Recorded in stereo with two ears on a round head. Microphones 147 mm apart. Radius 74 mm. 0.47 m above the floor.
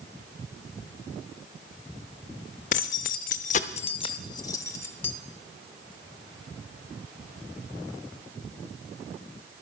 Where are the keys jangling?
50° left (ahead or behind), 0.7 m; by 5.1 s 15° left (ahead or behind), 1.2 m.